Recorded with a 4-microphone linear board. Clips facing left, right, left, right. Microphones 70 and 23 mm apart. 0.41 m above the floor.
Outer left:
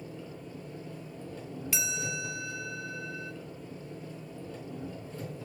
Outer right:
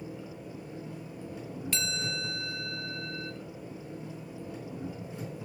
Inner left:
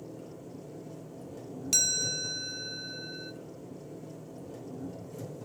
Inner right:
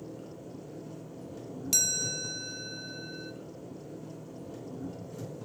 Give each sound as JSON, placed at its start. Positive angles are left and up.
{"t": 0.0, "sound": "an engine running", "side_deg": -15, "distance_m": 4.0}
{"t": 1.7, "sound": "a chime", "side_deg": 10, "distance_m": 0.5}